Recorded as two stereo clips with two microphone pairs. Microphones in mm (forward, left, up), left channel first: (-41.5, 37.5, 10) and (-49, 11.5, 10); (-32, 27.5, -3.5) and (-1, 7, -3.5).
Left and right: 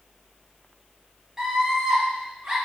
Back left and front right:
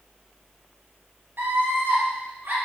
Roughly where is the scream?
Ahead right.